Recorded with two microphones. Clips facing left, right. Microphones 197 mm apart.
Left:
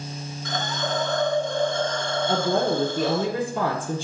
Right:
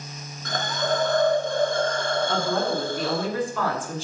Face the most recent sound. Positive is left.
turn(degrees=30)  # may be behind; listen again after turning